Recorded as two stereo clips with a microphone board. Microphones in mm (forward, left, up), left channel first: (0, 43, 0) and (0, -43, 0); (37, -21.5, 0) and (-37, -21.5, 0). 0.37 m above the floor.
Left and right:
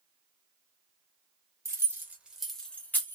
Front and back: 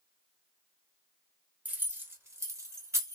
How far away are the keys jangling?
About 0.9 m.